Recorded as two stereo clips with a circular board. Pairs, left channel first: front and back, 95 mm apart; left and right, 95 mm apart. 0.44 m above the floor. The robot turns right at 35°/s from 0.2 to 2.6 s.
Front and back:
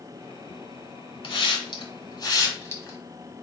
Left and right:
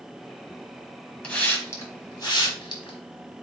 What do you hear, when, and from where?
1.2 s a hiss: 15° left, 1.3 m; by 3.0 s 60° left, 1.3 m